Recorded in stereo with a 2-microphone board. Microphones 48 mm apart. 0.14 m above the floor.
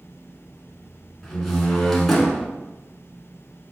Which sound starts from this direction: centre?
A door slam, at 1.2 s.